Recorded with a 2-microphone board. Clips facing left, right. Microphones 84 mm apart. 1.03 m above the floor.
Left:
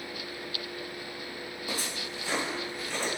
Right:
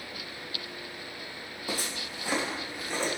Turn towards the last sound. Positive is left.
turn(degrees=-15)  # may be behind; listen again after turning